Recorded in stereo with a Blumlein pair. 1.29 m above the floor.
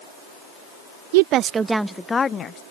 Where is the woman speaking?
50° right; by 2.6 s 25° left.